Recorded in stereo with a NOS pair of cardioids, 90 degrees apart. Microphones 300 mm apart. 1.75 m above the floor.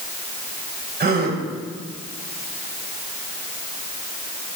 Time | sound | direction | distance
1.0 | a gasp | 35° right | 1.8 m